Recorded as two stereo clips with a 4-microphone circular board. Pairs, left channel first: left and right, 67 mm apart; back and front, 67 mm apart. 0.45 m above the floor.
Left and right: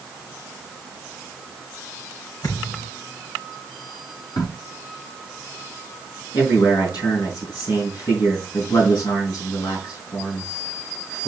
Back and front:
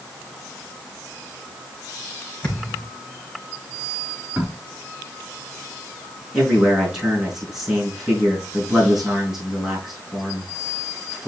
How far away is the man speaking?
About 5.5 m.